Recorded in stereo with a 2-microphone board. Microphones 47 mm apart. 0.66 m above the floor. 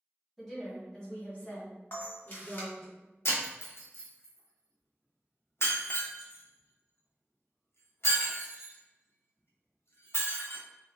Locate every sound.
0.4 s a woman speaking: centre (ahead or behind), 1.4 m; by 2.9 s 45° left (ahead or behind), 1.6 m
1.9 s a camera shutter: 40° left (ahead or behind), 0.9 m
3.2 s breaking glass: 65° left (ahead or behind), 0.6 m